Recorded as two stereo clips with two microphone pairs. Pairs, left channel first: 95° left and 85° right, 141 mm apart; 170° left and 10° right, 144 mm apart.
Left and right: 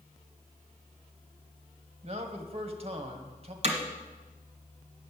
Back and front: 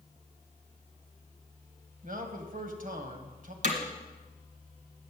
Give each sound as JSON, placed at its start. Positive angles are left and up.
{"t": 2.0, "sound": "a man speaking", "azimuth_deg": -35, "distance_m": 1.5}
{"t": 3.6, "sound": "hammering", "azimuth_deg": -35, "distance_m": 1.7}